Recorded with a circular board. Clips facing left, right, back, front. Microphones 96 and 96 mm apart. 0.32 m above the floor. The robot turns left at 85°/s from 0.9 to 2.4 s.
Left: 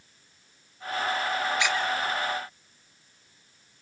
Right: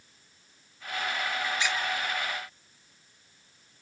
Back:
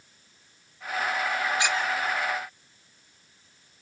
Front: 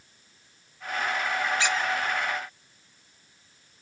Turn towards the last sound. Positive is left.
turn(degrees=40)